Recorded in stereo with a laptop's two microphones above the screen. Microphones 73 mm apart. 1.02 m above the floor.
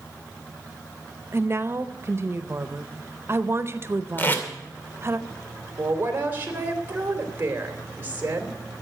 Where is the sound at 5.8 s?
25° right (ahead or behind), 3.5 m.